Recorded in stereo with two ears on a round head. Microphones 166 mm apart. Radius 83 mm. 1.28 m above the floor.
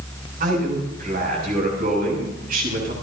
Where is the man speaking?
50° right (ahead or behind), 7 m.